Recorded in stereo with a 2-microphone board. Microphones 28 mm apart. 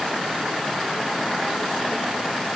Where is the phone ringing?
I don't hear a phone ringing.